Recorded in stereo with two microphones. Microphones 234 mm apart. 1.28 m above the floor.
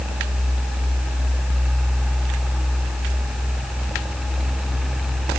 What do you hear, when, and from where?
Only background noise.